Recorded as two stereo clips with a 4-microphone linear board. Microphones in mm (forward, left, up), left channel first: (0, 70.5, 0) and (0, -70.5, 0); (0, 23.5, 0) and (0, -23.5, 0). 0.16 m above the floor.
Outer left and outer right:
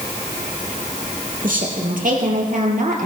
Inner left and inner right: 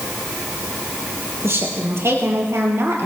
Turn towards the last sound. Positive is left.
turn(degrees=-70)  # may be behind; listen again after turning